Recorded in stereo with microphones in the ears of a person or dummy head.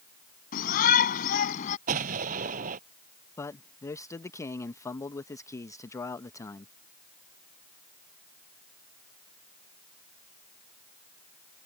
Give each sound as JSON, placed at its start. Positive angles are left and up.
{"t": 0.5, "sound": "a shout", "side_deg": 45}
{"t": 1.9, "sound": "an explosion", "side_deg": -50}
{"t": 3.4, "sound": "a man speaking", "side_deg": 20}